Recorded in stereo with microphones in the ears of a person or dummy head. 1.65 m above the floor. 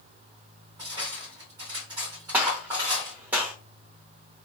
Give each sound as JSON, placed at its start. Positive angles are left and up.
{"t": 0.8, "sound": "cutlery clinking", "side_deg": -20, "distance_m": 1.2}
{"t": 2.3, "sound": "a gunshot", "side_deg": -15, "distance_m": 0.8}